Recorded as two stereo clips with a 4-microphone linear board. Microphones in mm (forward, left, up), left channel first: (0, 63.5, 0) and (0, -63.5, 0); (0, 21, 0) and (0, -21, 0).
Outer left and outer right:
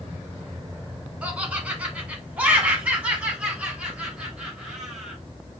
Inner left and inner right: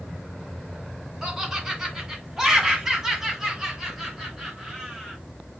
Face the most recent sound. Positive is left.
turn(degrees=-5)  # may be behind; listen again after turning